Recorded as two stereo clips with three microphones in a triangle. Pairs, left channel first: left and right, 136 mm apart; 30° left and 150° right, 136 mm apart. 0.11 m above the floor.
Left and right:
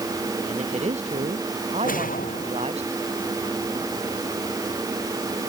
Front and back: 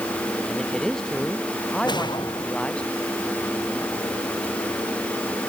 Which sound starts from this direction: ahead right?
A man speaking, at 0.5 s.